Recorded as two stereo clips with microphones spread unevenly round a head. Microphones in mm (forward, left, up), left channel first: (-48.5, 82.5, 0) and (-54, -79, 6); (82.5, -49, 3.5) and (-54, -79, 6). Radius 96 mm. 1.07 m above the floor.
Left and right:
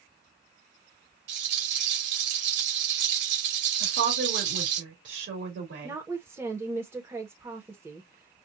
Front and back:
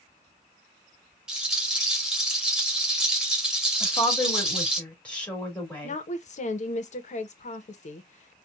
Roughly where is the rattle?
Right.